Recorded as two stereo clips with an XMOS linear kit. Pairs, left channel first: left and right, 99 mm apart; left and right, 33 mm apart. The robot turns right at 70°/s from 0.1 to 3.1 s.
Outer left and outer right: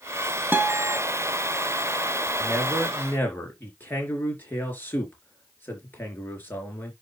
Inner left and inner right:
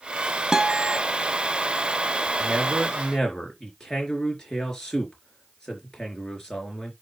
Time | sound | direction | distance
0.5 | a guitar | 155° right | 1.1 m
2.4 | a man speaking | 30° right | 4 m